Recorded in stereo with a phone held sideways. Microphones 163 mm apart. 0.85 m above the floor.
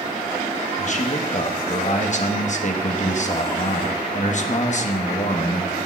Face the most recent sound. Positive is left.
turn(degrees=50)  # may be behind; listen again after turning